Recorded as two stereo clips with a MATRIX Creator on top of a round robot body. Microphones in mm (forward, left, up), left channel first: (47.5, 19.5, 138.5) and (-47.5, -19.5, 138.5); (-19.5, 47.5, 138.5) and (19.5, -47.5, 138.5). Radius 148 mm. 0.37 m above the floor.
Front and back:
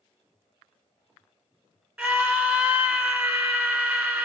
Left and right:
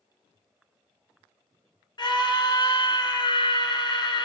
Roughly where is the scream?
Behind left.